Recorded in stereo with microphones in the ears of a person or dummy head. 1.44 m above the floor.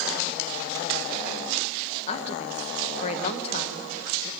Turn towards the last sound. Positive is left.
turn(degrees=40)  # may be behind; listen again after turning